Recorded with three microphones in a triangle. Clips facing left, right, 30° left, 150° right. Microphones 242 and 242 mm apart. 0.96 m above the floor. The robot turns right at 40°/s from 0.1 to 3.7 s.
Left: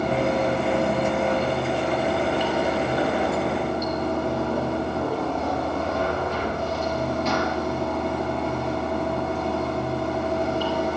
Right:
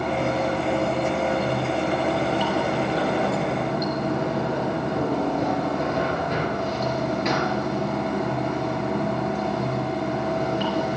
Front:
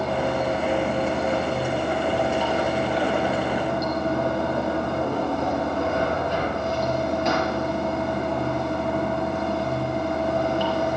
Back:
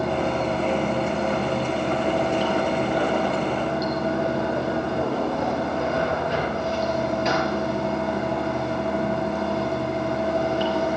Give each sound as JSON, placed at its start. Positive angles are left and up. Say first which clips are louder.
{"t": 0.0, "sound": "running water", "louder": "left 2 dB, back 1 dB", "azimuth_deg": 135, "distance_m": 4.0}